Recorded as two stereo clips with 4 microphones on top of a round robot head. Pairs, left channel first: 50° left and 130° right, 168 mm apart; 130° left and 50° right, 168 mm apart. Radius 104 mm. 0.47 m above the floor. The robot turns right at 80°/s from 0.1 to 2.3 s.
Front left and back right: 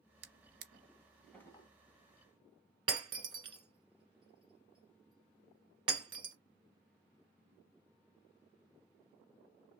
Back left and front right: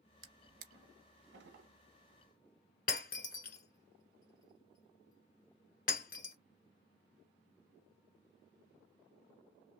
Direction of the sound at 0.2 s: 120° right.